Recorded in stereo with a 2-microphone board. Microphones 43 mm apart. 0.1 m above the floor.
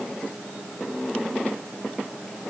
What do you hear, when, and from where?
Only background noise.